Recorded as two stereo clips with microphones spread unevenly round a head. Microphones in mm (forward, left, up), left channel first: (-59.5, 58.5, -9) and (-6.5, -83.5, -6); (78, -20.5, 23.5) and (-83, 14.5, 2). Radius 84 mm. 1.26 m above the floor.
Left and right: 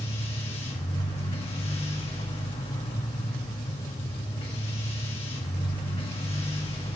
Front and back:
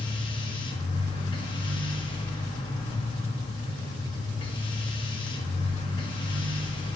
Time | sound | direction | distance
0.0 | a machine running | 50° left | 1.7 m